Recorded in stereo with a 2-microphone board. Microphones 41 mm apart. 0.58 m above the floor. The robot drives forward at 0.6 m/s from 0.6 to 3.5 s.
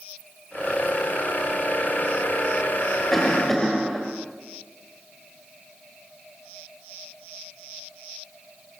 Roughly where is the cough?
Centre.